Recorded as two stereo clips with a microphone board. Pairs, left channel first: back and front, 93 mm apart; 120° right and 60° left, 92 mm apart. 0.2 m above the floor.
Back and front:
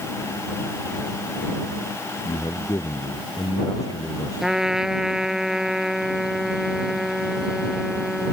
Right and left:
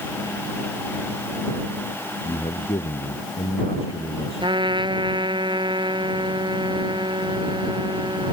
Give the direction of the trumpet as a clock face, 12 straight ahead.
9 o'clock.